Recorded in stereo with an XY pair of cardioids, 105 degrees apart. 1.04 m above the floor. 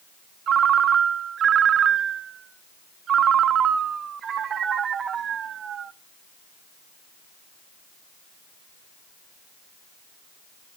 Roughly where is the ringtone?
Ahead right.